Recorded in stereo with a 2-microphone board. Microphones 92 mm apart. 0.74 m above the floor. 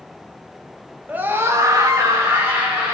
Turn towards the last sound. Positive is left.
turn(degrees=-20)  # may be behind; listen again after turning